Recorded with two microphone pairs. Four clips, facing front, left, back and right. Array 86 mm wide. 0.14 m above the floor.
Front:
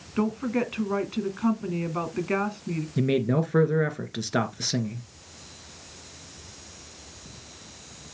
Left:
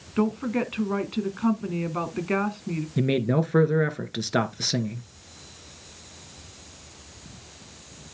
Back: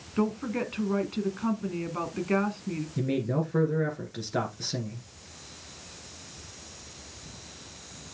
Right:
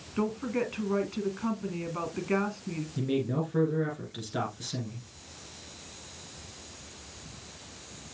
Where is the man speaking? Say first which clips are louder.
Left 6 dB, front 5 dB; 65° left, 2 m.